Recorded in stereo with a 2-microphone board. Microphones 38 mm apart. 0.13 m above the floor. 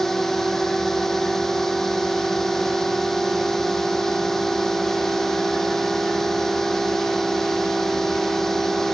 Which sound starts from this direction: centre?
A drone, at 0.0 s.